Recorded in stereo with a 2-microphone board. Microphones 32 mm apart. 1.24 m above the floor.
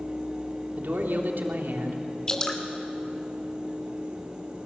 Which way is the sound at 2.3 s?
25° left (ahead or behind).